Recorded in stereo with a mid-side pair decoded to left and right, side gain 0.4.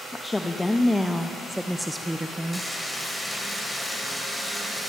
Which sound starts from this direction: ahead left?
A woman speaking, at 0.1 s.